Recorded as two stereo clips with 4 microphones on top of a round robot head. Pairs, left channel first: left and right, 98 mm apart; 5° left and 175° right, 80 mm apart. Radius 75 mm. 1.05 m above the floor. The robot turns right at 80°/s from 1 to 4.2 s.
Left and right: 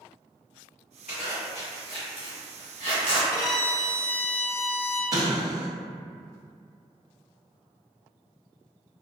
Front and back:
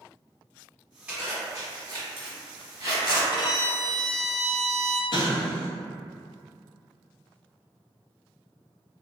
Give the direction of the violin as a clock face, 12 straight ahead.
11 o'clock.